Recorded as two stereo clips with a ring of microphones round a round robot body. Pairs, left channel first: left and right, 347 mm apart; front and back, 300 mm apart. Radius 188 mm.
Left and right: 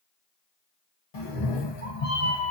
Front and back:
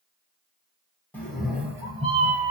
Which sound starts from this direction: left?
A cat meowing, at 1.1 s.